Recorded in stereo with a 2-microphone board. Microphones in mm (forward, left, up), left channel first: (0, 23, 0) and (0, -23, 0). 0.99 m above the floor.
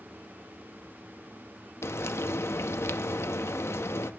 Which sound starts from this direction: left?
Frying, at 1.8 s.